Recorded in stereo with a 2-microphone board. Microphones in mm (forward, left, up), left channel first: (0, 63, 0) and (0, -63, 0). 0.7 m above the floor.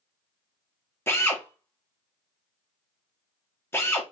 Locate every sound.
1.1 s a drill: 20° left (ahead or behind), 0.8 m